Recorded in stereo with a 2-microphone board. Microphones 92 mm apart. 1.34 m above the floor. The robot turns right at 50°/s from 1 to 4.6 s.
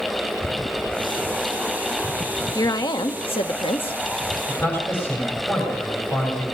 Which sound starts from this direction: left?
A man speaking, at 4.5 s.